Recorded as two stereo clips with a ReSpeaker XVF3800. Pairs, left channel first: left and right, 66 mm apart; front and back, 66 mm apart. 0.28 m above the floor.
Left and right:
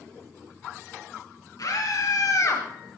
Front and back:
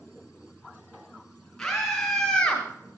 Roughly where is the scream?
Left.